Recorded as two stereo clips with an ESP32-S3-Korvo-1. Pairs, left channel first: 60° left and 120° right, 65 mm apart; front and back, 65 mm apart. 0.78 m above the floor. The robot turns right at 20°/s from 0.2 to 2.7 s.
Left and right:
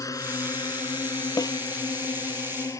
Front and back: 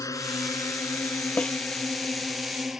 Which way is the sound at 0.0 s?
30° left.